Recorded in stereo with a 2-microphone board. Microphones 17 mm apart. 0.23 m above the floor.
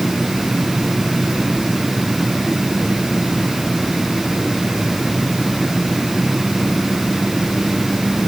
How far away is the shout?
I don't hear a shout.